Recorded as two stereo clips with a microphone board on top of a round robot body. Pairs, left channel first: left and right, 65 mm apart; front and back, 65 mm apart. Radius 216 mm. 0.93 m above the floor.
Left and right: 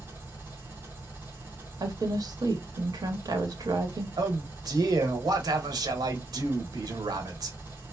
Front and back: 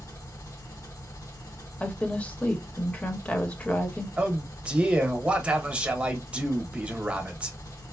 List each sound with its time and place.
0.0 s an engine running: 30° right, 1.3 m
1.8 s a woman speaking: 70° right, 1.1 m
4.2 s a man speaking: 105° right, 1.1 m